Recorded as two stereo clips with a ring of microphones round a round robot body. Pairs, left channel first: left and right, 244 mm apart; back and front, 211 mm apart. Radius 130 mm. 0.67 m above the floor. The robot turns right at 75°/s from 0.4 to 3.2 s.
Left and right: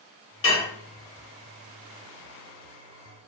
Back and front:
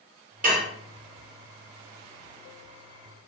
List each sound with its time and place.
0.4 s dishes clattering: 50° left, 1.0 m; by 0.7 s 70° left, 1.0 m